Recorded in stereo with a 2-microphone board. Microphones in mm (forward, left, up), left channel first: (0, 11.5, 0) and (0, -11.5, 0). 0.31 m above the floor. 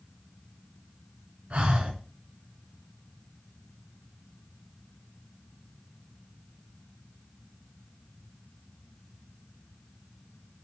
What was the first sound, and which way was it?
Breathing, 70° right (ahead or behind).